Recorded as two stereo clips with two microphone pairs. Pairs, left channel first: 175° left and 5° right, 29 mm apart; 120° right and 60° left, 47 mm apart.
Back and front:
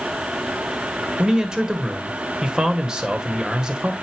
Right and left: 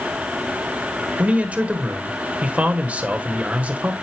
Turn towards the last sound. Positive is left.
turn(degrees=35)